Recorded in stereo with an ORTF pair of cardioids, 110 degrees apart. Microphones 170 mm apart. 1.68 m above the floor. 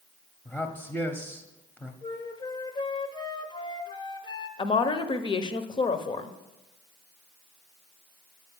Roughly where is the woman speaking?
Ahead left.